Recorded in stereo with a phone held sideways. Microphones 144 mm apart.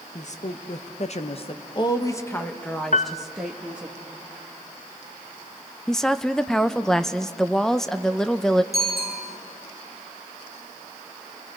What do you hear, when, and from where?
0.1 s a woman speaking: 55° left (ahead or behind), 1.2 m; by 3.9 s 10° right (ahead or behind), 1.7 m
2.9 s a piano: 55° left (ahead or behind), 0.6 m
5.9 s a woman speaking: 5° left (ahead or behind), 0.6 m
8.7 s a bicycle bell: 20° left (ahead or behind), 9 m